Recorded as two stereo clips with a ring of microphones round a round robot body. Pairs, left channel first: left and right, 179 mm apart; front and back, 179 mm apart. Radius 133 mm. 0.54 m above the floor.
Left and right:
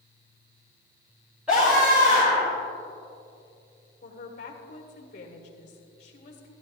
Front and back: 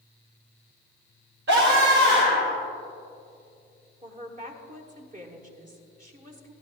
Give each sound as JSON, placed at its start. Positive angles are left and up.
{"t": 1.5, "sound": "a scream", "azimuth_deg": -175, "distance_m": 2.0}
{"t": 4.0, "sound": "a woman speaking", "azimuth_deg": 140, "distance_m": 1.7}